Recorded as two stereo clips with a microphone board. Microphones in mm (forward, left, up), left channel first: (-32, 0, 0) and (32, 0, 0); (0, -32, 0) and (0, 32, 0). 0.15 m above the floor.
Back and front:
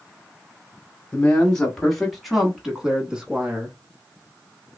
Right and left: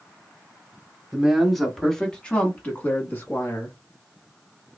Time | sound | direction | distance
1.1 | a man speaking | 155° left | 1.1 m